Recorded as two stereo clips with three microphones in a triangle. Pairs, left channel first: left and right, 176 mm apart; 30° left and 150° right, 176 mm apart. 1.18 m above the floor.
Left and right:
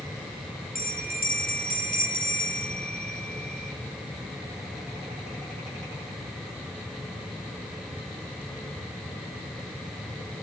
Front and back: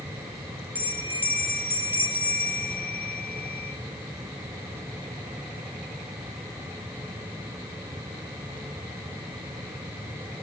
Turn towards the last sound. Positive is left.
turn(degrees=130)